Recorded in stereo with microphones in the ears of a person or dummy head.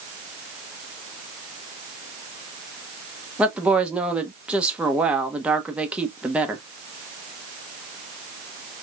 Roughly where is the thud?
I don't hear a thud.